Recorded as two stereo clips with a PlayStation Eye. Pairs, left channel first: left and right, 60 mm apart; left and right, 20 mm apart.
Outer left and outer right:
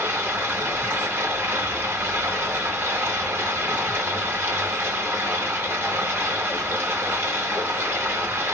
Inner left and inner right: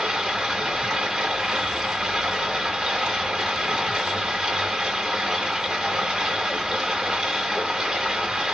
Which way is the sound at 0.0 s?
35° right (ahead or behind).